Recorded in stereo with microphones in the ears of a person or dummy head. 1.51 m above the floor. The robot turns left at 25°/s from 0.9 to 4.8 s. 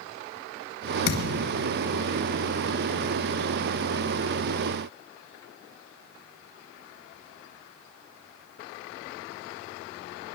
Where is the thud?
65° left (ahead or behind), 2.5 m; by 1.5 s 60° left (ahead or behind), 2.5 m.